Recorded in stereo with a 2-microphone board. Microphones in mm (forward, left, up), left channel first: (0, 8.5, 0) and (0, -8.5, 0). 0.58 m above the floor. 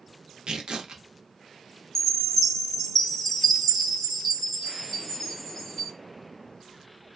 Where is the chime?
35° left (ahead or behind), 1.0 m.